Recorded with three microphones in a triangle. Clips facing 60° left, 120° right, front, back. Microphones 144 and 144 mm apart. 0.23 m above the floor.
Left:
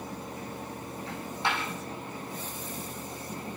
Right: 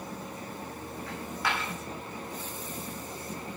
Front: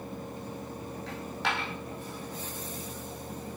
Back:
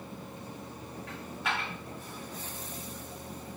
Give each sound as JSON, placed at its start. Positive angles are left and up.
{"t": 1.1, "sound": "a dropped coin", "azimuth_deg": -5, "distance_m": 5.0}